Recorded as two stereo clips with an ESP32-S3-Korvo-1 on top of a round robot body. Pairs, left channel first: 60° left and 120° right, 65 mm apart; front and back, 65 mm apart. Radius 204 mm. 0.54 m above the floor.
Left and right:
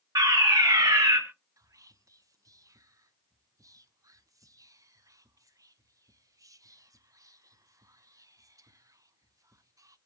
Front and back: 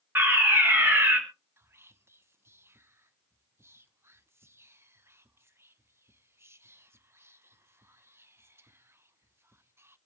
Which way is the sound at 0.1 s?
125° right.